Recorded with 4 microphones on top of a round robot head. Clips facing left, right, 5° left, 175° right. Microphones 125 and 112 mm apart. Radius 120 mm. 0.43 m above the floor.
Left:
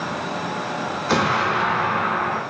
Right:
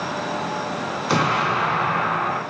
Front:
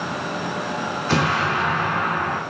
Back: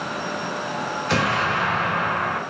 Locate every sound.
1.1 s an explosion: 15° right, 1.7 m